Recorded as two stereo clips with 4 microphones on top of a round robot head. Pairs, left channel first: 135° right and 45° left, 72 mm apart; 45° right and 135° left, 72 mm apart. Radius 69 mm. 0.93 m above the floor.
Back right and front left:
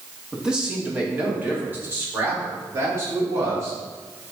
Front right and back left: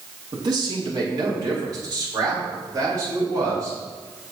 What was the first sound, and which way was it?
A man speaking, 125° left.